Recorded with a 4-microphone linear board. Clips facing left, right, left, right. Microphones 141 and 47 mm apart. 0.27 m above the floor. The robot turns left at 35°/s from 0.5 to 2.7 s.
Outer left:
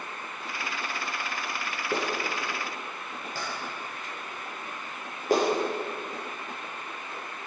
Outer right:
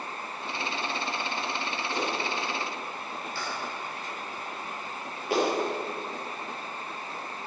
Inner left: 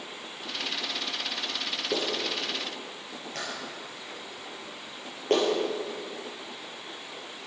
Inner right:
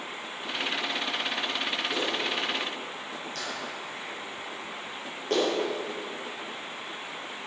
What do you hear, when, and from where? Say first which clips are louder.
1.9 s a clap: outer left 2 dB, inner right 1 dB; 65° left (ahead or behind), 6 m; by 5.5 s 40° left (ahead or behind), 6 m